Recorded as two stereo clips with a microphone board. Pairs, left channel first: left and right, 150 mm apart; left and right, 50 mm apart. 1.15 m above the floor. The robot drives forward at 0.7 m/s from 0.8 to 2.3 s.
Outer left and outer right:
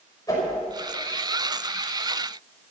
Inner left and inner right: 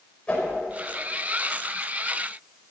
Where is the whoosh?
25° left (ahead or behind), 5.5 m.